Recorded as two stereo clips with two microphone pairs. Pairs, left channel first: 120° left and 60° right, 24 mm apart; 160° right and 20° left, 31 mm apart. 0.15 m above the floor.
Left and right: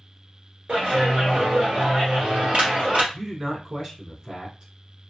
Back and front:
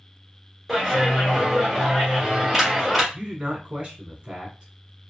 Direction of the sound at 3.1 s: 15° right.